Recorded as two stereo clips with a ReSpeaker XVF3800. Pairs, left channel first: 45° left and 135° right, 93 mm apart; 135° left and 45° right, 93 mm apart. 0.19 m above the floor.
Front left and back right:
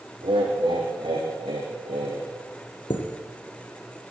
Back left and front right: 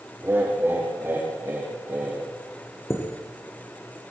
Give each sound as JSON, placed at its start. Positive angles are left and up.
{"t": 0.2, "sound": "laughter", "azimuth_deg": -110, "distance_m": 7.5}
{"t": 2.9, "sound": "a chime", "azimuth_deg": 75, "distance_m": 4.0}